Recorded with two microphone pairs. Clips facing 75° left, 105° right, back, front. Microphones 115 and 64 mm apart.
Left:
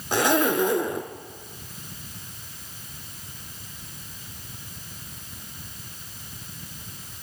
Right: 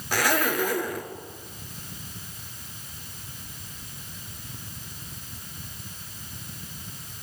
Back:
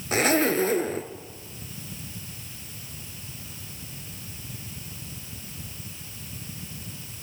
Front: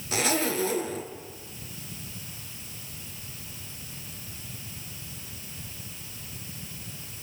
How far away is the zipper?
About 1.3 m.